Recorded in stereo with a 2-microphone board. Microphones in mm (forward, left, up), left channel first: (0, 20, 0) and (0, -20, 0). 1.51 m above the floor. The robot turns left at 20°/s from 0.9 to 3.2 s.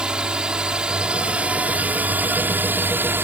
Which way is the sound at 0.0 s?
25° right.